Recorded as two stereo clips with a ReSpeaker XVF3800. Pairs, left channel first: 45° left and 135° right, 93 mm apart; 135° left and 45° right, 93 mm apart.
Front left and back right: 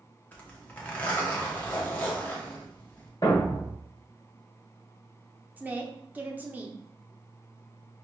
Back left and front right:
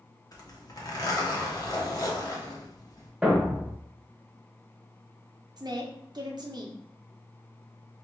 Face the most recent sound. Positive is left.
turn(degrees=-70)